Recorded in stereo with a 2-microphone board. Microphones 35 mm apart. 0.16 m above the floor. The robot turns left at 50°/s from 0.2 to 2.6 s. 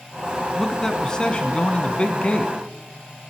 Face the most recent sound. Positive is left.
turn(degrees=60)